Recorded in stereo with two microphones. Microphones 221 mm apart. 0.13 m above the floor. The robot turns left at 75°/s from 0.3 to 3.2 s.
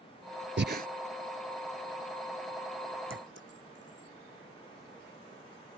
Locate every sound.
0.6 s breathing: 55° right (ahead or behind); by 0.9 s 40° right (ahead or behind)
3.1 s a clink: 65° right (ahead or behind); by 4.1 s 55° right (ahead or behind)